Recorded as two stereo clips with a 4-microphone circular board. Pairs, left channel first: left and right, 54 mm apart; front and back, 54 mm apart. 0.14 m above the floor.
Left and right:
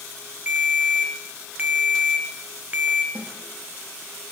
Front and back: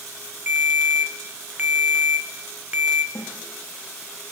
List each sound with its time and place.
0.5 s a ringtone: 140° right, 1.4 m
3.1 s a snare drum: 30° right, 8.5 m